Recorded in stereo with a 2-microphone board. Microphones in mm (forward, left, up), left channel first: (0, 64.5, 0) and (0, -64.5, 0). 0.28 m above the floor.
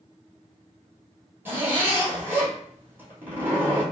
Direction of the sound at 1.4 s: 15° right (ahead or behind).